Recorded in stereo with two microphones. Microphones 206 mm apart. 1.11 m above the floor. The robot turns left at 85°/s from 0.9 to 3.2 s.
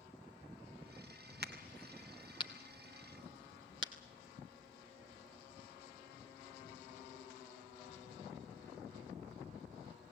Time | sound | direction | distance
1.4 | a crack | 60° right (ahead or behind) | 2.5 m